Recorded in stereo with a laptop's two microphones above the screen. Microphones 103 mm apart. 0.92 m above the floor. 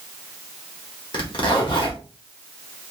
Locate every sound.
1.1 s a zipper: 50° left (ahead or behind), 1.3 m